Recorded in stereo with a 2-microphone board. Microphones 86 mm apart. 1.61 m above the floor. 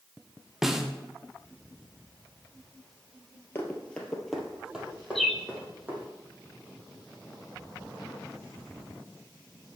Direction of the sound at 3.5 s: 25° left (ahead or behind).